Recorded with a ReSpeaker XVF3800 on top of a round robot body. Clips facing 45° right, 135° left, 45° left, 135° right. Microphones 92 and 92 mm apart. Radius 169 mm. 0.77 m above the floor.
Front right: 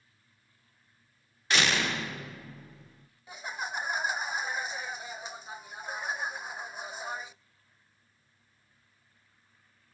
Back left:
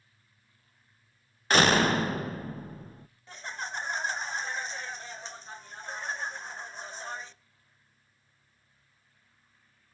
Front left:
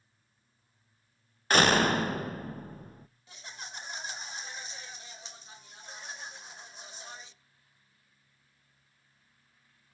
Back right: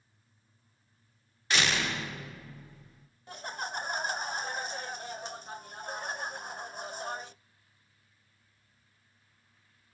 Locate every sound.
1.5 s a door slam: 85° left, 0.9 m
3.3 s laughter: 125° right, 0.5 m